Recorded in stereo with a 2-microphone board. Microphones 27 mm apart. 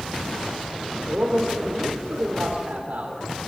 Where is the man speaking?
60° right (ahead or behind), 3 m.